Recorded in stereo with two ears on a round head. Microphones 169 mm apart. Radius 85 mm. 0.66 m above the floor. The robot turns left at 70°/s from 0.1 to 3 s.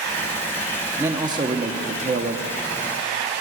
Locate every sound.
1.0 s a man speaking: 20° right, 0.7 m; by 2.5 s 125° right, 0.7 m